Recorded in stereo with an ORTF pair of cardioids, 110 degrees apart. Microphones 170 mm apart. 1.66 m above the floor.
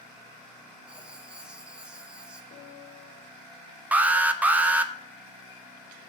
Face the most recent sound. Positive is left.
turn(degrees=-10)